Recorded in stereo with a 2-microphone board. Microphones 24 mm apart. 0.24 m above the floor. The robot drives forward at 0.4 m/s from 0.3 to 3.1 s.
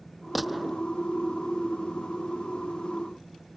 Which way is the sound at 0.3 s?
5° right (ahead or behind).